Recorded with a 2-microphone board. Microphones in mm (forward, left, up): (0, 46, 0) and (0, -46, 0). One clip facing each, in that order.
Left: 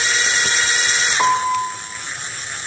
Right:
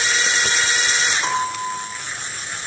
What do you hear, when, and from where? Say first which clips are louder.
1.2 s a piano: left 6 dB; 80° left, 7.5 m